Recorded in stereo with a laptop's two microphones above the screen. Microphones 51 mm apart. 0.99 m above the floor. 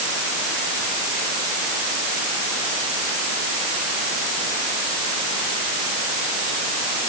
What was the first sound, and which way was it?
Only background noise.